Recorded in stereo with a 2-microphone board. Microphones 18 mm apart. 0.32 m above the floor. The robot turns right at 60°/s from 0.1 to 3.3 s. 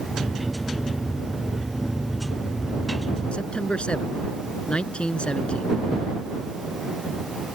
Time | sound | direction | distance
3.3 | a man speaking | 65° left (ahead or behind) | ?